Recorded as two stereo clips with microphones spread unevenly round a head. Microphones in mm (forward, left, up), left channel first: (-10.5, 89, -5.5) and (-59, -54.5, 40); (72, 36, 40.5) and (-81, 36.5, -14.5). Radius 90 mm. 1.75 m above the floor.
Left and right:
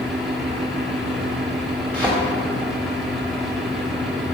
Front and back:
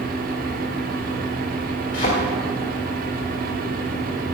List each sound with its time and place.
0.0 s a fan: 160° left, 3 m
1.9 s a thud: 20° right, 2.5 m